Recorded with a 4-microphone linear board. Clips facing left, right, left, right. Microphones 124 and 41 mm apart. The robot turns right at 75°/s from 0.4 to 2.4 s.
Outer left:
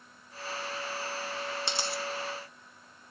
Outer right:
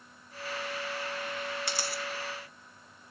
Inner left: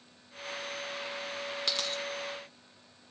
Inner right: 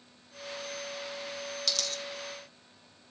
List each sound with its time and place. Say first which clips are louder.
1.7 s a dropped coin: outer left 1 dB, inner left 1 dB; 25° left (ahead or behind), 0.8 m